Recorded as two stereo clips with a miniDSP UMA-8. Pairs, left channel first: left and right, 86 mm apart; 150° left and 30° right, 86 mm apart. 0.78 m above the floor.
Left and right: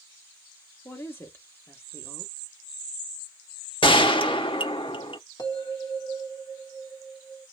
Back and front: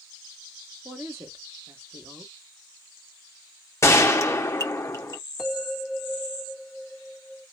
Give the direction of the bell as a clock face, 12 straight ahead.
10 o'clock.